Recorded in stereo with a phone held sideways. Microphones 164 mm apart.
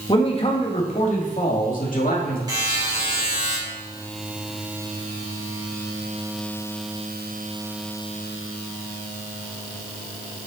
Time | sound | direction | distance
0.1 | a man speaking | 30° left (ahead or behind) | 1.5 m
2.5 | a buzzer | 25° right (ahead or behind) | 3.5 m